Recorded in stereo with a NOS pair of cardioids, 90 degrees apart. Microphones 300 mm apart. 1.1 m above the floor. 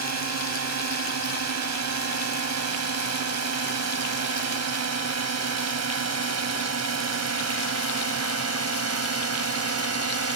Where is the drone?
60° right; by 10.4 s 55° right.